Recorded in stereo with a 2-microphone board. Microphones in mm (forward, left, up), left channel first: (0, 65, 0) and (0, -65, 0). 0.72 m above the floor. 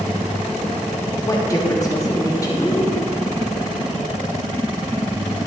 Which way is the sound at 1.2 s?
25° left (ahead or behind).